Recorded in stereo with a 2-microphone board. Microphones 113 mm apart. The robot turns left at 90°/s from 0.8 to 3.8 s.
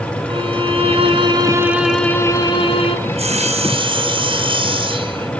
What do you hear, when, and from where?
0.3 s a violin: 80° right, 2.5 m; by 3.0 s 85° left, 2.5 m
3.1 s sawing: 60° right, 2.5 m; by 5.3 s 130° right, 2.5 m